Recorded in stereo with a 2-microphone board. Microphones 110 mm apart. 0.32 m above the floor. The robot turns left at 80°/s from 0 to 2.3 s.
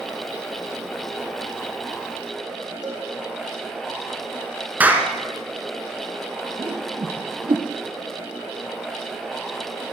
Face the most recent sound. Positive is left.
turn(degrees=-50)  # may be behind; listen again after turning